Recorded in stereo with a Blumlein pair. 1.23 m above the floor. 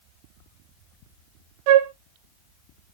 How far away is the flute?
About 0.6 m.